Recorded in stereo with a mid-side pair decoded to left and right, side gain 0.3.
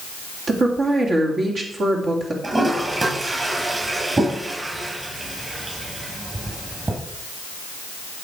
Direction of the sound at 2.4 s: 40° right.